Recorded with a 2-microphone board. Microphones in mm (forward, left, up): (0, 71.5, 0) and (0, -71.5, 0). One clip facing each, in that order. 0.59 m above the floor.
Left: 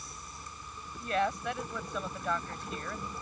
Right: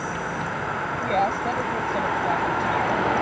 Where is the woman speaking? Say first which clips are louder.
Right 7 dB; 35° right (ahead or behind).